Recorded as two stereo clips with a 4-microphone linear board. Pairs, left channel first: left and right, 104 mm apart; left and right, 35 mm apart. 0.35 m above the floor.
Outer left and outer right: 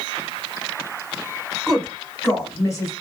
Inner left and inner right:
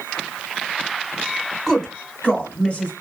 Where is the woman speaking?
Centre (ahead or behind), 0.8 m; by 2.9 s 35° left (ahead or behind), 1.4 m.